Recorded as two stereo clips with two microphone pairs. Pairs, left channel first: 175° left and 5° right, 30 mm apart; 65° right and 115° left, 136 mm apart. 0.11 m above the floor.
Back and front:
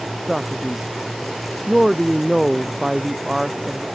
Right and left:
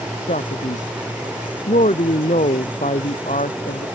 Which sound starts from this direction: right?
A man speaking, at 0.3 s.